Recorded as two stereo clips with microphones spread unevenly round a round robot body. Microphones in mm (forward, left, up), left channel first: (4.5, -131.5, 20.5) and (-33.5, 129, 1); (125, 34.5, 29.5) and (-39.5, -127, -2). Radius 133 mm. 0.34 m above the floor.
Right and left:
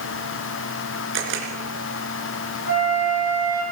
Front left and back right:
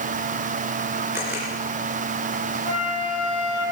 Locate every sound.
1.1 s a camera shutter: 140° left, 3 m
2.7 s a flute: 135° right, 9.5 m